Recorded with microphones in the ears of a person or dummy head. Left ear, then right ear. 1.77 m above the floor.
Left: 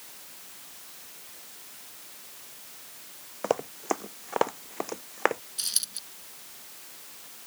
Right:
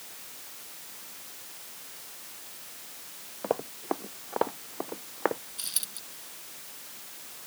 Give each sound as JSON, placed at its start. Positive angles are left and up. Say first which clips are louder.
{"t": 3.4, "sound": "running footsteps", "louder": "left 3 dB", "side_deg": 80}
{"t": 5.6, "sound": "a dropped coin", "louder": "left 5 dB", "side_deg": 25}